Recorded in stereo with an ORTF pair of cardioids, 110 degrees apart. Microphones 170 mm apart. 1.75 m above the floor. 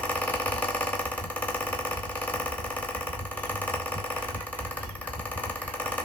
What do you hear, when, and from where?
0.0 s a fan: 10° left, 0.9 m